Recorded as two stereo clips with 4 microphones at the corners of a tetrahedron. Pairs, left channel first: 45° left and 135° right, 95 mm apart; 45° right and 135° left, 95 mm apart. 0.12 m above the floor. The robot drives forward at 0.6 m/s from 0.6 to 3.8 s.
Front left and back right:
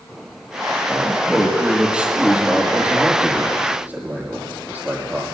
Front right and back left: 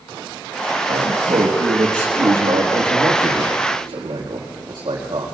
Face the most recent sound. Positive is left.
turn(degrees=155)